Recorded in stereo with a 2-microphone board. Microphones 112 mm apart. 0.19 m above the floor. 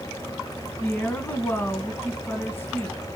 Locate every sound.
0.8 s a woman speaking: 20° left (ahead or behind), 1.7 m